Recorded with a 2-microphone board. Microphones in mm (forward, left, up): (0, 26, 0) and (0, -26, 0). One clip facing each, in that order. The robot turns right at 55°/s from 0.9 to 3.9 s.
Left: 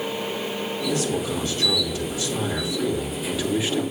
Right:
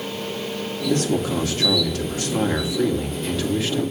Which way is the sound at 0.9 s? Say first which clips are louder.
Right 5 dB; 130° right.